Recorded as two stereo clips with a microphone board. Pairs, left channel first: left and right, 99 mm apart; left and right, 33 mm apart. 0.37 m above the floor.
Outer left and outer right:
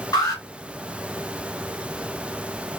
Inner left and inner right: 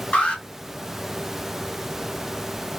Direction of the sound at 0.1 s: 40° left (ahead or behind).